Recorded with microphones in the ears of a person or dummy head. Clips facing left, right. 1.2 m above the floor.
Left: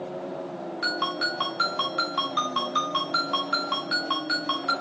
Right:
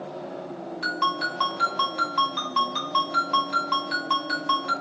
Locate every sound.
0.8 s a ringtone: 5° left (ahead or behind), 3.5 m